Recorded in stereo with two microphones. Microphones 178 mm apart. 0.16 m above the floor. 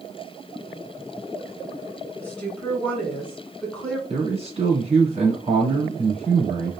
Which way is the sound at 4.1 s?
35° right (ahead or behind).